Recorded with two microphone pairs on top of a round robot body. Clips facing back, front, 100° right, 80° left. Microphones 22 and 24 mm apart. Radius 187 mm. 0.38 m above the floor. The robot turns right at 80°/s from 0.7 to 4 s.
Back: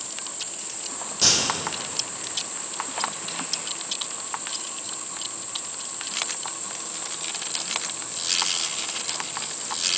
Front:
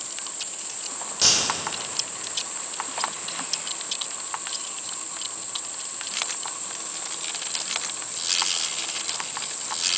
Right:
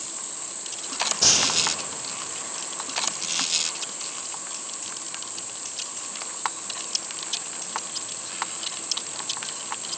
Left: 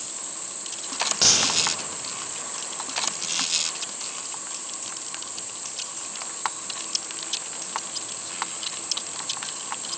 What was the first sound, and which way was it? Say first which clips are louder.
A crack: even, left 1 dB; 75° left.